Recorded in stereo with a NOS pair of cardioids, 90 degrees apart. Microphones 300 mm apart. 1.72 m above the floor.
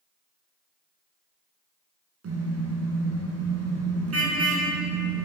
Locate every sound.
2.2 s a car horn: 50° right, 9.5 m